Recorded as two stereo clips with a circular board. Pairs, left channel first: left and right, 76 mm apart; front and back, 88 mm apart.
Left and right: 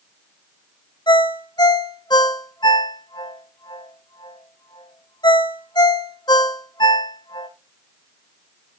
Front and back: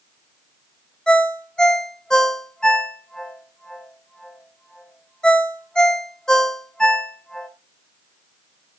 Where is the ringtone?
80° left, 1.8 m.